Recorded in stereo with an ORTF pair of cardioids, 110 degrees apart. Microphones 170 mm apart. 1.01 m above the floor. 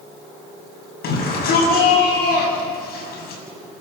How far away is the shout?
About 8.5 m.